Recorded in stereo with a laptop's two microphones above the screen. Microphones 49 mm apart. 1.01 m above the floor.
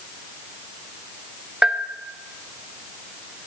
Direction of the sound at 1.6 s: 20° right (ahead or behind).